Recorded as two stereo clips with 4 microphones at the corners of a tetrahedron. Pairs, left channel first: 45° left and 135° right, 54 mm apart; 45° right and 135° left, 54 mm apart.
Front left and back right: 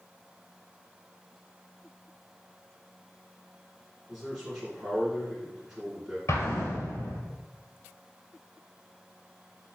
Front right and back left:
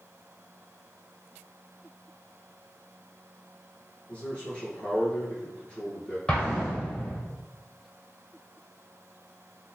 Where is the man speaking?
65° right, 1.6 m.